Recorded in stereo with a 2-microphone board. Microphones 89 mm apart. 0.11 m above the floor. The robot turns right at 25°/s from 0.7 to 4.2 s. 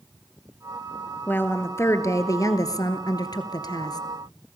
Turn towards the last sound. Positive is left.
turn(degrees=100)